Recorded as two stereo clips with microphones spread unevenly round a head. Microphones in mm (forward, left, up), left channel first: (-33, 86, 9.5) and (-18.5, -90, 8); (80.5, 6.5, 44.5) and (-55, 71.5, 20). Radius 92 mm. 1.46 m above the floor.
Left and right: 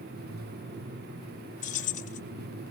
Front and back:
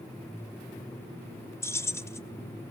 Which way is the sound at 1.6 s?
45° left.